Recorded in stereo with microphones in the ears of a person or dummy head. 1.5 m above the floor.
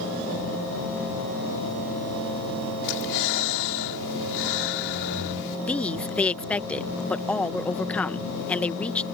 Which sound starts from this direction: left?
Breathing, at 2.8 s.